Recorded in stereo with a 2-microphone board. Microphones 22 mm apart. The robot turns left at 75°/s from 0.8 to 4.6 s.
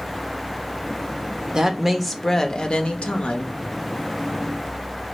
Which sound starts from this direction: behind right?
A woman speaking, at 1.5 s.